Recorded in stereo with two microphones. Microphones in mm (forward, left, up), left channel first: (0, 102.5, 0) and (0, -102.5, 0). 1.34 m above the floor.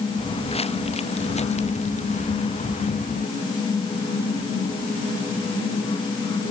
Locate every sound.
0.2 s footsteps: 30° left (ahead or behind); by 3.3 s 40° left (ahead or behind)